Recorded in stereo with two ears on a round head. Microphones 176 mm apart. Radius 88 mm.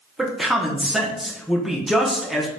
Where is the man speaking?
Centre (ahead or behind), 0.8 m.